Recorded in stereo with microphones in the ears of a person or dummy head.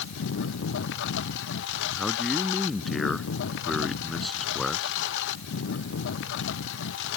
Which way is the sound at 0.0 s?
60° left (ahead or behind).